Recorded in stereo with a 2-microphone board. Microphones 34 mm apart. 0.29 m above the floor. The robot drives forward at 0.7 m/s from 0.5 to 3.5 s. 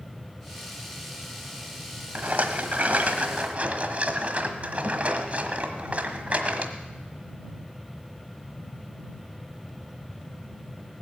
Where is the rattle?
45° right (ahead or behind), 1.3 m; by 6.7 s 40° right (ahead or behind), 1.4 m.